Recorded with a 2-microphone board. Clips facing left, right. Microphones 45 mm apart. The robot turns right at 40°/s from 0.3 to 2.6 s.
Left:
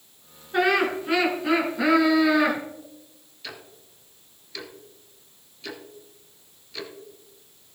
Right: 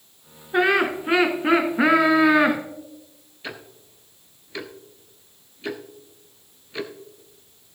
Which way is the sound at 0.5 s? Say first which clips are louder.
Right 2 dB; 150° right.